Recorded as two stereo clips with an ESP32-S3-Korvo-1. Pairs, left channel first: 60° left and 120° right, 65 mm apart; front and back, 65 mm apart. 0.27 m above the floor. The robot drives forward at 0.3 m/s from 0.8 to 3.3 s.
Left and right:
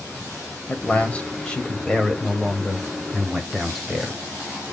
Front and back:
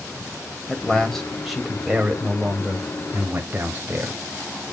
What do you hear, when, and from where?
0.7 s a man speaking: 65° left, 1.1 m; by 4.2 s 145° left, 1.2 m